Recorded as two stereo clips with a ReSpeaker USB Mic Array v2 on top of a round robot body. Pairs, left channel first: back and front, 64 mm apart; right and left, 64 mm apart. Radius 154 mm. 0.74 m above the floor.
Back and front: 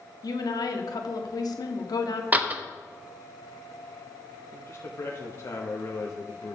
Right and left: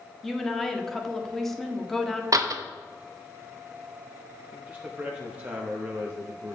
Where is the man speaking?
150° left, 1.3 m.